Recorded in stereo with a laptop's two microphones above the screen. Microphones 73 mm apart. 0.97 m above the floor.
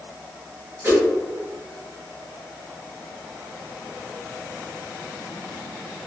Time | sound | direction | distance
0.8 | a whoosh | 35° right (ahead or behind) | 1.2 m